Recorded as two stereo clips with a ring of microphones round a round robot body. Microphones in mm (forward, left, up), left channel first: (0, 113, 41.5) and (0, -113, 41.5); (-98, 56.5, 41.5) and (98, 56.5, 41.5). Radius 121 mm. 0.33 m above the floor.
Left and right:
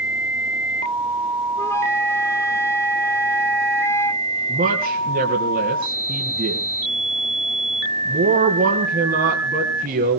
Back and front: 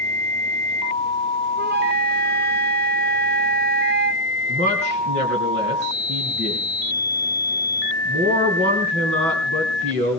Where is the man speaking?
40° right, 3 m.